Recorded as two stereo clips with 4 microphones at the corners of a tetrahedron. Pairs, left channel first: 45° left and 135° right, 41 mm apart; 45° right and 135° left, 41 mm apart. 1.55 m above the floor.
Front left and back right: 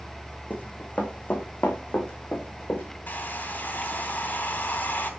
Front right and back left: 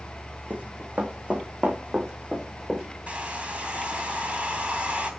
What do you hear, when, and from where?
0.5 s running footsteps: 90° left, 4.5 m; by 2.8 s 55° left, 6 m
3.1 s a hair dryer: 75° left, 3 m